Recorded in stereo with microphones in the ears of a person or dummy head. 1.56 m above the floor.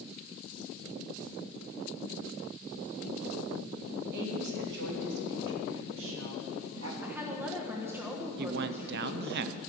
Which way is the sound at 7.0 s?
15° right (ahead or behind).